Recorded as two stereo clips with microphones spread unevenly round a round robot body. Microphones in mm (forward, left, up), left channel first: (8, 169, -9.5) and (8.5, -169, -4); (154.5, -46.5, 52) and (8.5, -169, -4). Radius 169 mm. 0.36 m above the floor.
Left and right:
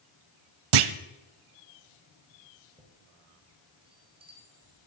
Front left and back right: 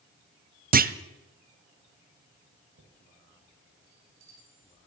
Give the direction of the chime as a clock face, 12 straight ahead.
6 o'clock.